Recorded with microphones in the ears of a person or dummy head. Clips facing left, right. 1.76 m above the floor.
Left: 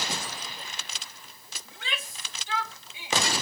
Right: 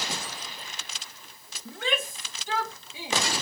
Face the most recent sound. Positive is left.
turn(degrees=-30)  # may be behind; listen again after turning